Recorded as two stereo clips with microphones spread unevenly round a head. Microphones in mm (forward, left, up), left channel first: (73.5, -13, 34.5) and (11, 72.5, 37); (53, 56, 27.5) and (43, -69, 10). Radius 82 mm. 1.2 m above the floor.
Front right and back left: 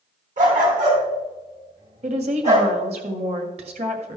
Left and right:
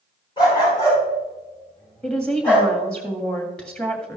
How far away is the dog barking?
About 4.5 m.